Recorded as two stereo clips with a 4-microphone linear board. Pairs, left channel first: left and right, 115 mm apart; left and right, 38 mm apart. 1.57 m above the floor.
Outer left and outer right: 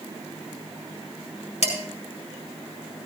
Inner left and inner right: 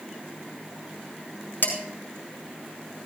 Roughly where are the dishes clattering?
Left.